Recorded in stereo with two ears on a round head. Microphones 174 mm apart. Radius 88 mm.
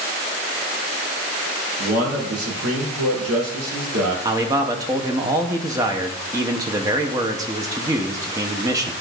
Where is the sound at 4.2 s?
15° right (ahead or behind), 0.7 m.